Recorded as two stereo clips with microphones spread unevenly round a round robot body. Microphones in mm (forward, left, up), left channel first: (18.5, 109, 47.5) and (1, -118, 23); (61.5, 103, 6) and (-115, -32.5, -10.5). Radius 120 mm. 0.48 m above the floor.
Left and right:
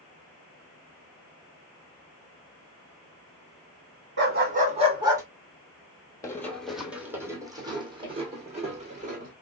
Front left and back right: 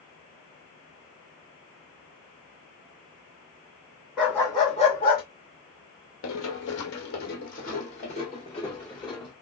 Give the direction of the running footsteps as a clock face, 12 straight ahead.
12 o'clock.